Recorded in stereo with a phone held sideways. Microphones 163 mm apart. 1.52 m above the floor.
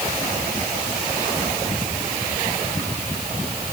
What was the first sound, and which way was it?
Only background noise.